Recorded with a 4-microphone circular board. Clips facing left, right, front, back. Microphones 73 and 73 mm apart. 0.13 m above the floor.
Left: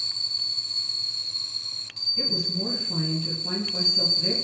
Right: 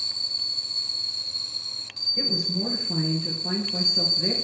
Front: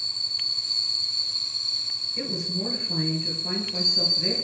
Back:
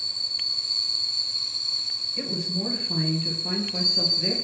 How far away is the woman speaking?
About 2 m.